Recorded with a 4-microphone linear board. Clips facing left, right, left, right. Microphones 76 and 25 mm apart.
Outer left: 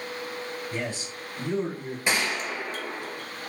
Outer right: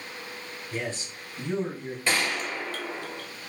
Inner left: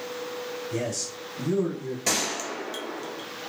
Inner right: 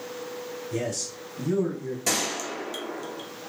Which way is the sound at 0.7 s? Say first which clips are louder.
Outer right 4 dB, inner right 1 dB; 15° left (ahead or behind).